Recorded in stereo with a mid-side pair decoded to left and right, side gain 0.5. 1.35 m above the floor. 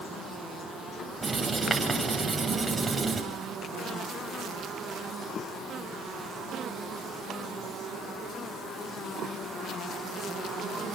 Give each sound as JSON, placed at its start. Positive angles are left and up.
{"t": 1.2, "sound": "writing", "azimuth_deg": -15, "distance_m": 8.0}